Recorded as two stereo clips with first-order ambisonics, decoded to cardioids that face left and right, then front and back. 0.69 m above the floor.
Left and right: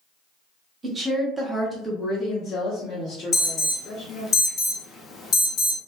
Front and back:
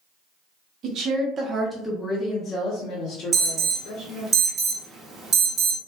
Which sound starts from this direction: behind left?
An alarm, at 3.3 s.